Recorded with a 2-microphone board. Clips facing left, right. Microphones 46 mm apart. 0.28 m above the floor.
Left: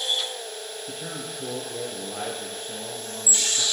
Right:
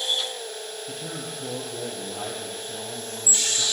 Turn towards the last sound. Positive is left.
turn(degrees=75)  # may be behind; listen again after turning